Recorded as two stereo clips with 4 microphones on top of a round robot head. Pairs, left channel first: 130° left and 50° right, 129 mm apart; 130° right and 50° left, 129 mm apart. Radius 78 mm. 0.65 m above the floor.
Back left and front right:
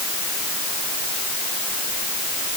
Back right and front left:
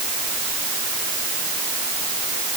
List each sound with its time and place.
Only background noise.